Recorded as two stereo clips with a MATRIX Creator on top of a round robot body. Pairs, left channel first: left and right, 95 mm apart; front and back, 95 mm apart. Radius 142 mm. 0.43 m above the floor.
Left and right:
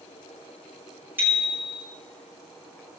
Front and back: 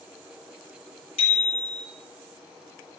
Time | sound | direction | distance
1.2 | a bicycle bell | 20° right | 8 m